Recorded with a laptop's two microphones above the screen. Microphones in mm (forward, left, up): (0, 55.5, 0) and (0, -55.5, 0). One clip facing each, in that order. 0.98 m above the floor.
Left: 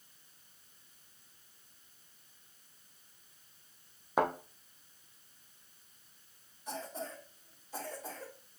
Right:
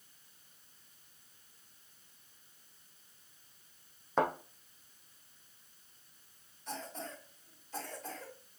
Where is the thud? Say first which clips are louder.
Left 1 dB; 10° left (ahead or behind), 2.5 m.